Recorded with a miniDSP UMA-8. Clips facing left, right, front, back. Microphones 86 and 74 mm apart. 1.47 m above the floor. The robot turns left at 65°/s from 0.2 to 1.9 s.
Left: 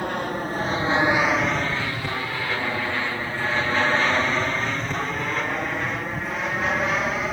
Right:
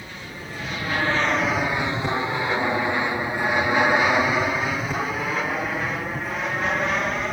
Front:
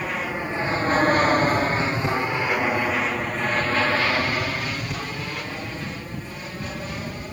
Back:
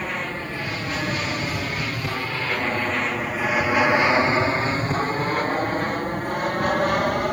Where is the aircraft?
85° left; by 7.3 s straight behind.